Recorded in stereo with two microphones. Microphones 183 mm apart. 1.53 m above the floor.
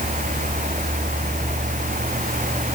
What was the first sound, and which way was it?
Only background noise.